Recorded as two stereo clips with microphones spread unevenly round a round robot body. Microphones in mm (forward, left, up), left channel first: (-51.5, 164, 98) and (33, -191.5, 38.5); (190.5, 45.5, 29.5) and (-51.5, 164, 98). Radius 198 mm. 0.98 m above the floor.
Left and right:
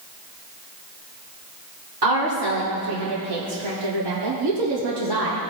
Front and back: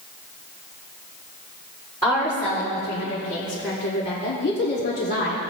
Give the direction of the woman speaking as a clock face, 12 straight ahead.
3 o'clock.